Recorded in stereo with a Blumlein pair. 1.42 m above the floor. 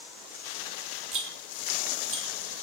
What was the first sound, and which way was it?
A rattle, 35° right.